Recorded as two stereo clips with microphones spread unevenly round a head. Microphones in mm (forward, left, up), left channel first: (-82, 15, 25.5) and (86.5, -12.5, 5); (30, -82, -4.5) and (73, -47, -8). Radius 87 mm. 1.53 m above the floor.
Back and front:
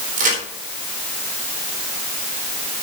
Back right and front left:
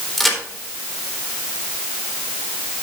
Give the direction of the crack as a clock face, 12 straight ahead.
2 o'clock.